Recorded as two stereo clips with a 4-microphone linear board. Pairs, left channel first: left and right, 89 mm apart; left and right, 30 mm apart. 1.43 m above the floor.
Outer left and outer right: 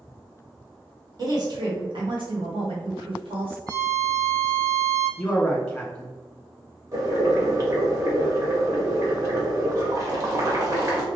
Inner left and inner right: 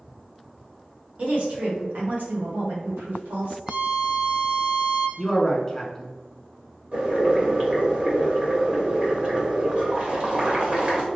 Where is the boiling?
45° right (ahead or behind), 1.1 m.